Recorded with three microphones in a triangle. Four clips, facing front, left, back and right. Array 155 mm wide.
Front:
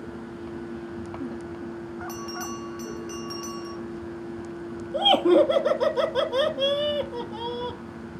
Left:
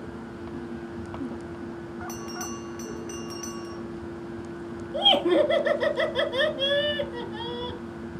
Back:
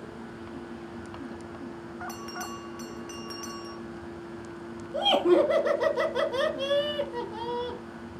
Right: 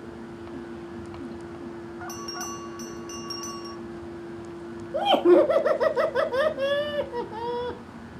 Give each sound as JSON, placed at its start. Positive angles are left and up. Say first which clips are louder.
{"t": 2.1, "sound": "a bell", "louder": "even, front 4 dB", "azimuth_deg": 160, "distance_m": 3.0}
{"t": 4.9, "sound": "laughter", "louder": "right 4 dB, front 3 dB", "azimuth_deg": -75, "distance_m": 1.6}